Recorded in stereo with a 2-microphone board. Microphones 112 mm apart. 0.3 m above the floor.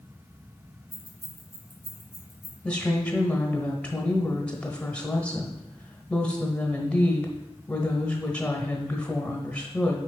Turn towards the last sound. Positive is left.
turn(degrees=10)  # may be behind; listen again after turning